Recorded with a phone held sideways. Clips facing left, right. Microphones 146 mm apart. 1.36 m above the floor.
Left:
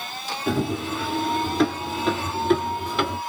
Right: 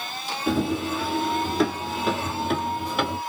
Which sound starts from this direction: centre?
Running footsteps, at 0.5 s.